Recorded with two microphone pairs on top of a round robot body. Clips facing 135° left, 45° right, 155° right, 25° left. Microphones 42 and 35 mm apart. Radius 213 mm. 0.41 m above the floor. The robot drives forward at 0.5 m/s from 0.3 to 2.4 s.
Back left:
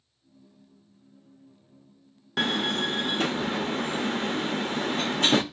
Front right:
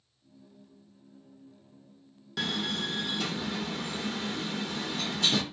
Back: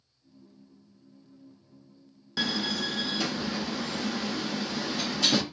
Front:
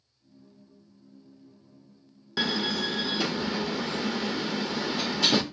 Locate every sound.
2.4 s a door slam: 115° left, 0.5 m; by 5.4 s 120° left, 0.5 m